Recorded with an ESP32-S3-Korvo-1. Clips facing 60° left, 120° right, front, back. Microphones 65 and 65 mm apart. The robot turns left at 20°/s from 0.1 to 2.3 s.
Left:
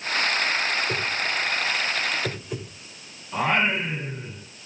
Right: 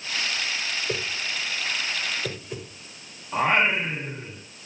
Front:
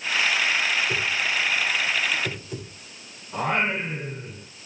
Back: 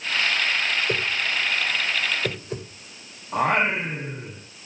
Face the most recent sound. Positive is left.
turn(degrees=175)